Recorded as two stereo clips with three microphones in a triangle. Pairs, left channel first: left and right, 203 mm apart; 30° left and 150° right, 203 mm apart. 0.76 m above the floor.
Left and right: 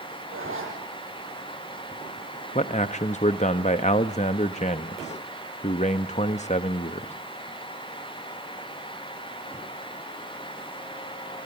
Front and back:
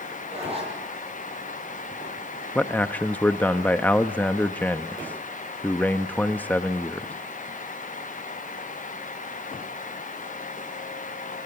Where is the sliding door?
I don't hear a sliding door.